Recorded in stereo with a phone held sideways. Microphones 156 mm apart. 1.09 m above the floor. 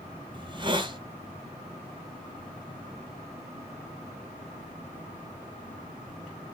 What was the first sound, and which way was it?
A hiss, 30° right (ahead or behind).